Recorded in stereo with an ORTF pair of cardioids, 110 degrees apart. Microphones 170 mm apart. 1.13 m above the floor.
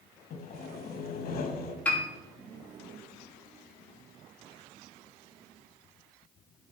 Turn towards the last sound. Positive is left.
turn(degrees=10)